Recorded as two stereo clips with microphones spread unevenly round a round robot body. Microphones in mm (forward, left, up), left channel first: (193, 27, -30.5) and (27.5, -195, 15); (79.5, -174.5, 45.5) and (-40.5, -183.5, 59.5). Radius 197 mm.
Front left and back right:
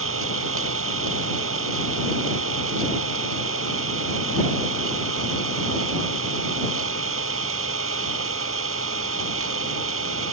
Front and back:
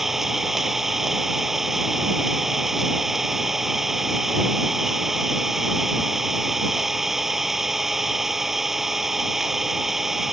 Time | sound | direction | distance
0.0 | an engine running | 90° right | ?